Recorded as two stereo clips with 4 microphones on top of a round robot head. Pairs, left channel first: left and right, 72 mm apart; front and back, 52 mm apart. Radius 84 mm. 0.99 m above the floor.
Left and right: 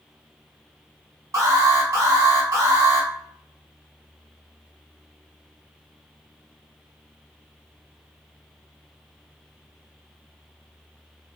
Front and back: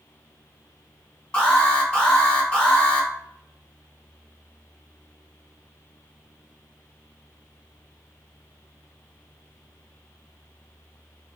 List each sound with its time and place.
1.3 s an alarm: 70° right, 1.5 m